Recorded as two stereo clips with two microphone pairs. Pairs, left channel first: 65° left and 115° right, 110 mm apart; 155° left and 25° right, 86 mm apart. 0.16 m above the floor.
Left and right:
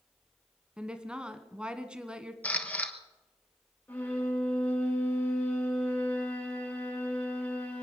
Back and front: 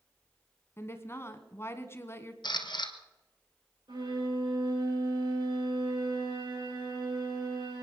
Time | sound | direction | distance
0.8 | a woman speaking | 175° left | 1.2 m
2.4 | a camera shutter | 140° left | 1.2 m
3.9 | a violin | 5° right | 6 m